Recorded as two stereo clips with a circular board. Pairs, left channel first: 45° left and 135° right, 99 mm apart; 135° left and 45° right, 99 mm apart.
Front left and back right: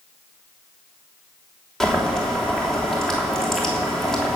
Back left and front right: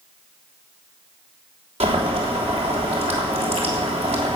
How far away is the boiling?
About 3.5 m.